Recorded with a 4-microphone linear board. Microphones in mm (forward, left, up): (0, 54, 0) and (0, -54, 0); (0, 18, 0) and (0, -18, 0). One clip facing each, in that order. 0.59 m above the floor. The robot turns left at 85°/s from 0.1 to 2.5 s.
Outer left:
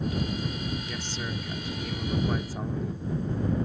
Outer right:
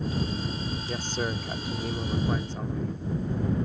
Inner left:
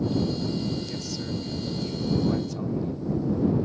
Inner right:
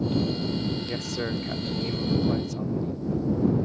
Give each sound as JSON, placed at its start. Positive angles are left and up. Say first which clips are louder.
{"t": 0.9, "sound": "a man speaking", "louder": "outer right 4 dB, inner right 3 dB", "azimuth_deg": -50}